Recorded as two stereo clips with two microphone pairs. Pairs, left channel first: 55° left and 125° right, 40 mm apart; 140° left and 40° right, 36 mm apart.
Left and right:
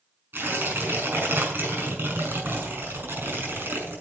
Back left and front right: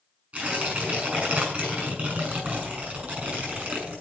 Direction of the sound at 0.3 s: 95° right.